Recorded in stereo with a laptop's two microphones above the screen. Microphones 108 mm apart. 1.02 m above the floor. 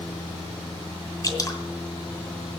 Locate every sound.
1.2 s dripping: 35° left (ahead or behind), 2 m